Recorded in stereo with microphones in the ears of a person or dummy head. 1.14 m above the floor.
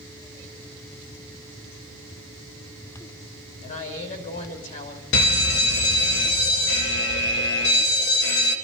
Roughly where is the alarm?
Left.